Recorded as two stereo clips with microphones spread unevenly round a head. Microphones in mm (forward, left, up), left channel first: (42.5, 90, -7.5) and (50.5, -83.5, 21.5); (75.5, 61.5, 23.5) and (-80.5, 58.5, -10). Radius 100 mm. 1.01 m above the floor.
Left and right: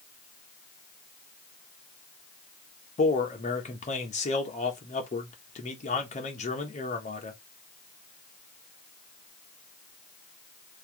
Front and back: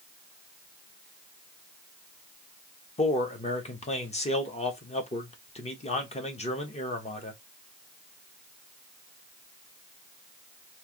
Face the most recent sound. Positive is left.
turn(degrees=55)